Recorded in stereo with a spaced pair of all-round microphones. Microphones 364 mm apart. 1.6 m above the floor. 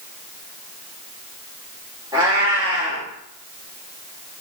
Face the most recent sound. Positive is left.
turn(degrees=-10)  # may be behind; listen again after turning